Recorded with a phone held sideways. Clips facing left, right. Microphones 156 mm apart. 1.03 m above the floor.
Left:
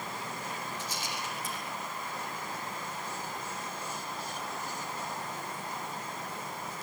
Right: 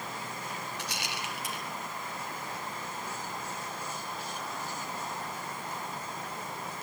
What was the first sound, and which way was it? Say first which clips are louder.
A rattle: even; 70° right (ahead or behind).